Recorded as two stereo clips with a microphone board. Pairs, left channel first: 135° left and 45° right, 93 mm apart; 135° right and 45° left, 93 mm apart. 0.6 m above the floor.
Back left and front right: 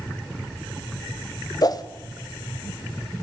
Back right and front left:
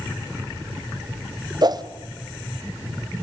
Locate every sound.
1.6 s a whoosh: 90° left, 1.0 m